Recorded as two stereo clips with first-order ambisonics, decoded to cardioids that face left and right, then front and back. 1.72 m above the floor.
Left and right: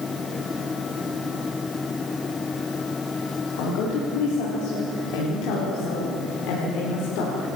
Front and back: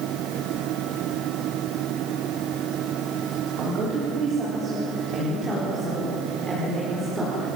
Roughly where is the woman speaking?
Behind left.